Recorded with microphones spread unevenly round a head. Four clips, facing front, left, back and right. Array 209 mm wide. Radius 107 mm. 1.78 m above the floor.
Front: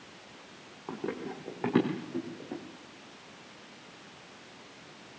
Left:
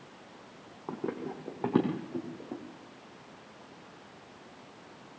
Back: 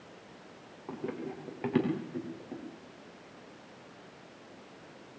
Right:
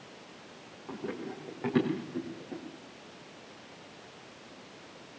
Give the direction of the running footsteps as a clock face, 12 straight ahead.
10 o'clock.